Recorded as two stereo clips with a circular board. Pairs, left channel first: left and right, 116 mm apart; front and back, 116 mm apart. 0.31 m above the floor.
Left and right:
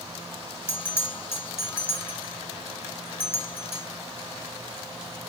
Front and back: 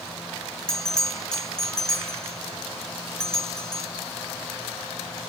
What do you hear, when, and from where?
0.7 s a bell: 75° left, 1.2 m